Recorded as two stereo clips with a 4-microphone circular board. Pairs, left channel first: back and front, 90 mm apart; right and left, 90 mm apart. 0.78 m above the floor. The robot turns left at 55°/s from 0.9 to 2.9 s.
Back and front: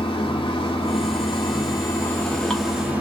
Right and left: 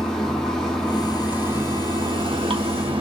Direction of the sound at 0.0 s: 175° right.